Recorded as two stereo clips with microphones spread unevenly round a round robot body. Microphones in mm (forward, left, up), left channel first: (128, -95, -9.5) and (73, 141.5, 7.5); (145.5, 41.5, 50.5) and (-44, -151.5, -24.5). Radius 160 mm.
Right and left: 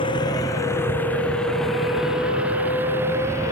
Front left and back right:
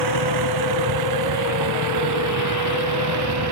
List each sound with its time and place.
0.0 s a vehicle: 155° right; by 3.5 s 175° right